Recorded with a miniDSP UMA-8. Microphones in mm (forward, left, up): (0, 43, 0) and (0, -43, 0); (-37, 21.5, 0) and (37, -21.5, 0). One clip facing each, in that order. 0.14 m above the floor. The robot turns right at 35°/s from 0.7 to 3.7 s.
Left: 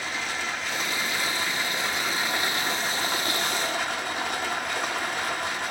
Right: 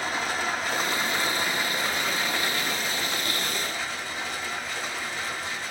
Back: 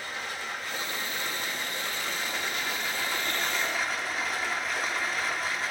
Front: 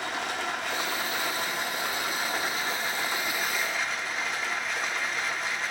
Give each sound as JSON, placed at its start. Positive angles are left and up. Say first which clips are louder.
{"t": 0.0, "sound": "running water", "louder": "right 3 dB, front 5 dB", "azimuth_deg": -45, "distance_m": 0.9}